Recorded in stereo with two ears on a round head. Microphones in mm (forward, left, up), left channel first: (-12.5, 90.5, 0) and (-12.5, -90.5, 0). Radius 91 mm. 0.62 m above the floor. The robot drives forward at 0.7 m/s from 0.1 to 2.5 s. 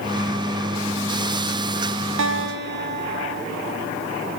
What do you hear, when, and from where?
2.2 s a guitar: 70° right (ahead or behind), 0.9 m; by 3.4 s 60° right (ahead or behind), 1.0 m